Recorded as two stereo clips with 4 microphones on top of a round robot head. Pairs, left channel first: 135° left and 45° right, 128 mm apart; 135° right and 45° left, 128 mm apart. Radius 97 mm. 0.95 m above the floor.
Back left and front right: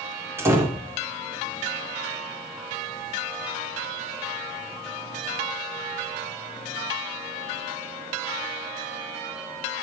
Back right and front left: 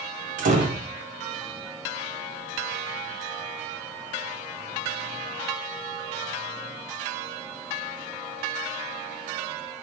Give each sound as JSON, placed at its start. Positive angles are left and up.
{"t": 0.4, "sound": "a door slam", "azimuth_deg": 25, "distance_m": 2.5}